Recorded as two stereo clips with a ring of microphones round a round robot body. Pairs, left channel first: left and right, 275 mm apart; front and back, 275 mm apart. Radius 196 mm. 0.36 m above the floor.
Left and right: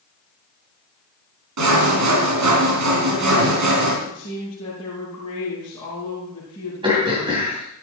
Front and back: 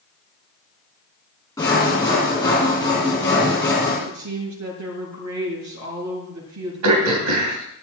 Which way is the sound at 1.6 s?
80° right.